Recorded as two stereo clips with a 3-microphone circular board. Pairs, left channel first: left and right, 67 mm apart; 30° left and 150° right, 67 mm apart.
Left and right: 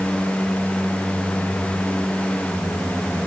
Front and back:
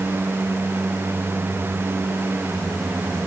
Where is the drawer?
I don't hear a drawer.